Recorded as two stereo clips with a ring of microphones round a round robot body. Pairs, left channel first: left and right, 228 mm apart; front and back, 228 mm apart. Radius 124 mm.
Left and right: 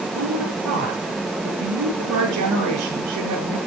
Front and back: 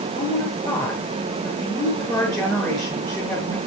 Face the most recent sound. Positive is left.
turn(degrees=-80)